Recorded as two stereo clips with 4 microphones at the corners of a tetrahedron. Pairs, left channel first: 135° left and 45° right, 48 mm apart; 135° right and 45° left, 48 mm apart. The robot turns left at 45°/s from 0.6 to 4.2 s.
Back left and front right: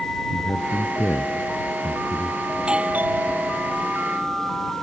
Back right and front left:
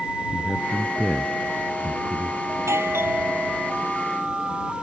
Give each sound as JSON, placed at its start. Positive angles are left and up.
{"t": 0.3, "sound": "a man speaking", "azimuth_deg": 140}
{"t": 2.5, "sound": "a doorbell", "azimuth_deg": 30}